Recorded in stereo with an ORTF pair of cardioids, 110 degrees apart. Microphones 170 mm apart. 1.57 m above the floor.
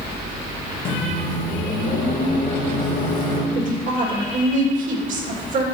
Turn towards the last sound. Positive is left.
turn(degrees=-50)